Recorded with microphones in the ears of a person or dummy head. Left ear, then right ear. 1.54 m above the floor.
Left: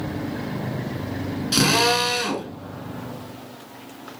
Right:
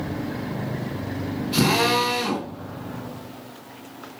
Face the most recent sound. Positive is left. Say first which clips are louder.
# left 2 dB
turn(degrees=70)  # may be behind; listen again after turning